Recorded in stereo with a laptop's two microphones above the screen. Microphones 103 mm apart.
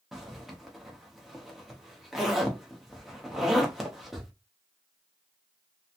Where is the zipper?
Centre (ahead or behind), 0.9 m.